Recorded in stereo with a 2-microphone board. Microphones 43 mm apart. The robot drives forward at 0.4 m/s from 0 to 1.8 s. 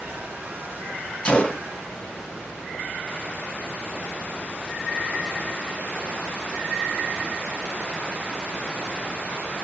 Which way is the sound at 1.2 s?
25° left (ahead or behind).